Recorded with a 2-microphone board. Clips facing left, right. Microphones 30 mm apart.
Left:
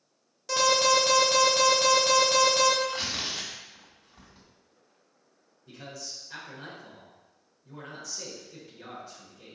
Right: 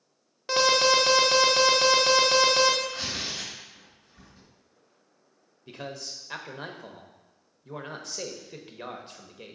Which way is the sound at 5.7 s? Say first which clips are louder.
Right 4 dB; 50° right (ahead or behind).